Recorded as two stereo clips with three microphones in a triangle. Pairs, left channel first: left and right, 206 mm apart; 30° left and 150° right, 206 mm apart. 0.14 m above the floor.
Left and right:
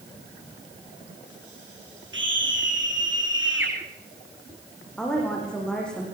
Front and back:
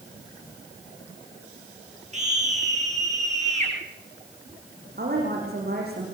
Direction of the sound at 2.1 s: 95° right.